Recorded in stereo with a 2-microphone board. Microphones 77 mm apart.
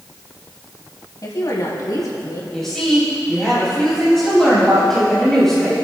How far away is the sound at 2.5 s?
About 3.5 m.